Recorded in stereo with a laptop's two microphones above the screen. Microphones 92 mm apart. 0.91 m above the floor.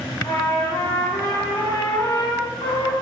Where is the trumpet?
40° left (ahead or behind), 0.9 m.